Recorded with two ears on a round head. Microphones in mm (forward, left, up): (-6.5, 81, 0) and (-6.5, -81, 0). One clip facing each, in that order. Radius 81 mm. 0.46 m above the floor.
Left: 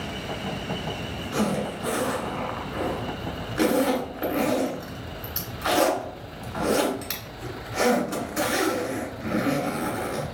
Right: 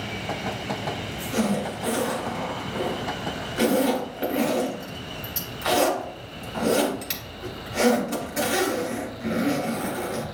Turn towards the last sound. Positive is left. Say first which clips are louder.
# right 1 dB
turn(degrees=-10)  # may be behind; listen again after turning